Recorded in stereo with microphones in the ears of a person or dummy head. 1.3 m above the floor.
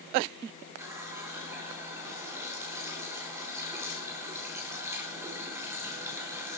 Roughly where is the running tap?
Right.